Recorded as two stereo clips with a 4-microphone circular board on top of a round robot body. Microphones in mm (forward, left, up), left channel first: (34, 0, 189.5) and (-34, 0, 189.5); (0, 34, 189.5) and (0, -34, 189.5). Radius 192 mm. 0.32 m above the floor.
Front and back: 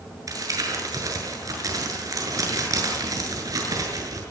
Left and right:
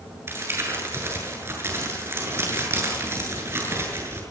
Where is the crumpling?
145° right, 7.5 m.